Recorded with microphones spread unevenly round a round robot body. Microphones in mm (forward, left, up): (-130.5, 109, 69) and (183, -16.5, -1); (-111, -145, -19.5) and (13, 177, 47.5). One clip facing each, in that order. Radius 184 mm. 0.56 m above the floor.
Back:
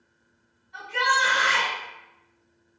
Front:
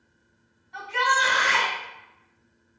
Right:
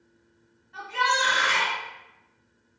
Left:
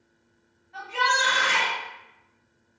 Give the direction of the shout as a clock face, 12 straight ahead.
1 o'clock.